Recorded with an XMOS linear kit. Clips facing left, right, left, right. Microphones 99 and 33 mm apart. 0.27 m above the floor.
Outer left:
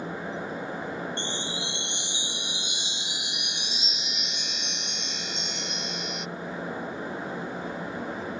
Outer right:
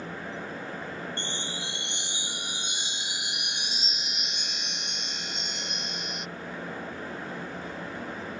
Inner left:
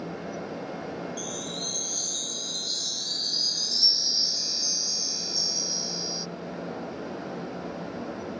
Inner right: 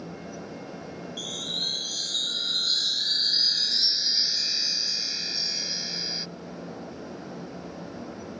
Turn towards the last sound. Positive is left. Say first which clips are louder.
# outer left 3 dB, inner right 3 dB
turn(degrees=-50)  # may be behind; listen again after turning